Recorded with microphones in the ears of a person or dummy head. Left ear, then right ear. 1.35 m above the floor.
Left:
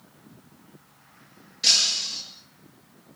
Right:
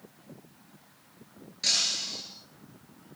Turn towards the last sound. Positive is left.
turn(degrees=5)  # may be behind; listen again after turning